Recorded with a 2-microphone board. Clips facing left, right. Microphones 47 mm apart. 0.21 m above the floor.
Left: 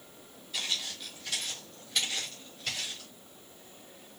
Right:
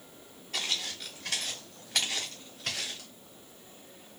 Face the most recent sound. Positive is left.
turn(degrees=-65)  # may be behind; listen again after turning